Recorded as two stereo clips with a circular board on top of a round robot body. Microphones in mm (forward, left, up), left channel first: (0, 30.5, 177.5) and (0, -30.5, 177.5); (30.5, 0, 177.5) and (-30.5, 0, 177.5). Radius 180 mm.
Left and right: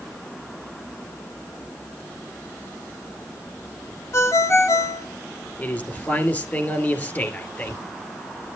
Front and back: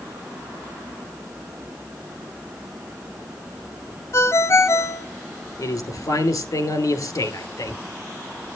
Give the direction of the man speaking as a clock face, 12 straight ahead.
11 o'clock.